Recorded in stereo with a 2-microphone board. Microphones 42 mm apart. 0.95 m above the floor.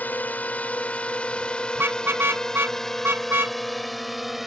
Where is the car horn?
65° right (ahead or behind).